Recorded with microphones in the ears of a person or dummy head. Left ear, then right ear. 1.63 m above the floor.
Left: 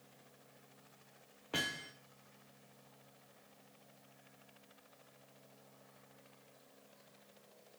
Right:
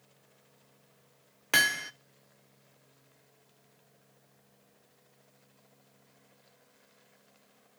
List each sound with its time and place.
1.5 s hammering: 50° right (ahead or behind), 0.6 m